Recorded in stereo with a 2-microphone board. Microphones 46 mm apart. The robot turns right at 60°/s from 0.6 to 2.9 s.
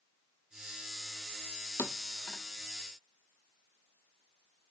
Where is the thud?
50° left (ahead or behind), 0.5 m; by 2.4 s 40° left (ahead or behind), 0.5 m.